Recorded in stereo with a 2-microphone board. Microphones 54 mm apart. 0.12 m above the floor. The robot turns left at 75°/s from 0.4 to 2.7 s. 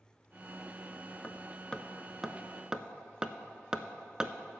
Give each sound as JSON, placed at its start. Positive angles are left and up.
{"t": 1.2, "sound": "hammering", "side_deg": 25, "distance_m": 0.5}